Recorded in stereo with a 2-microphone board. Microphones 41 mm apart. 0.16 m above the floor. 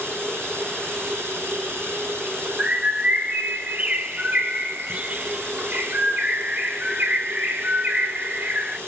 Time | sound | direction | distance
0.0 | running water | 70° right (ahead or behind) | 1.5 m
2.6 | a bird | 35° right (ahead or behind) | 0.9 m